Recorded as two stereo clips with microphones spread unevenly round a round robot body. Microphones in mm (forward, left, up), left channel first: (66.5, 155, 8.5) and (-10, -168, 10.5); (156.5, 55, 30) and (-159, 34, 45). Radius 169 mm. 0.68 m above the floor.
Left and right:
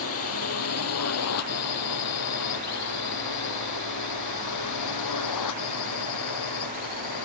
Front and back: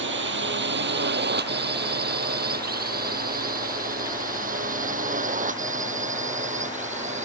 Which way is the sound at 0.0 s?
130° left.